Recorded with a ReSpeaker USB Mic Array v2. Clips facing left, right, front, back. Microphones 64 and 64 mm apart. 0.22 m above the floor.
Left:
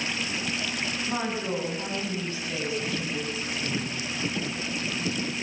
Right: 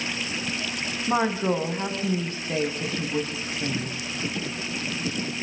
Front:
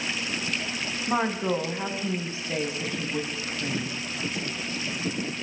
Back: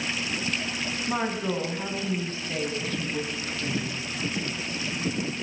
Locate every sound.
1.1 s a woman speaking: 65° right, 2 m